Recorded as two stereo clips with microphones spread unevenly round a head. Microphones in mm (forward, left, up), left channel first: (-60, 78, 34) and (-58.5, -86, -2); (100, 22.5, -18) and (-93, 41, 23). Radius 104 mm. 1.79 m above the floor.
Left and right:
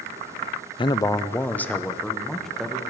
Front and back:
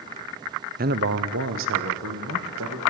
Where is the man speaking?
140° left, 0.7 m; by 2.8 s straight behind, 2.5 m.